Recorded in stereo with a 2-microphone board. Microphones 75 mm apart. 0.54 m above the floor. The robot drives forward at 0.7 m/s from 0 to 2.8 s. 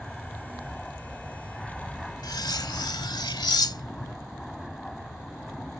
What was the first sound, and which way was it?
An aircraft, 5° left (ahead or behind).